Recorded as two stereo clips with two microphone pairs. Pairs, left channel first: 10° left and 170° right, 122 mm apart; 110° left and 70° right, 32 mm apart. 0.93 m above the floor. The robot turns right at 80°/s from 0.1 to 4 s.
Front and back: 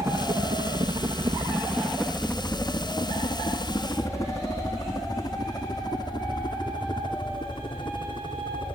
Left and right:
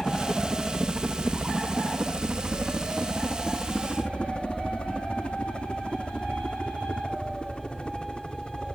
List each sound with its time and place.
0.0 s a helicopter: 155° left; by 8.8 s 50° left